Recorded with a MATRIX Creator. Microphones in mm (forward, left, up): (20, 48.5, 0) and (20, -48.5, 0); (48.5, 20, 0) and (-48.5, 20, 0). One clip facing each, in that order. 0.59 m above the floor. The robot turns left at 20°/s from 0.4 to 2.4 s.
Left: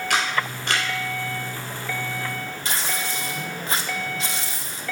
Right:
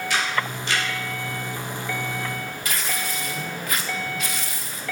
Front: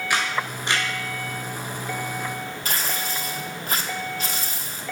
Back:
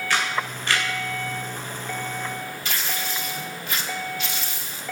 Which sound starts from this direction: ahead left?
Tearing paper, at 2.6 s.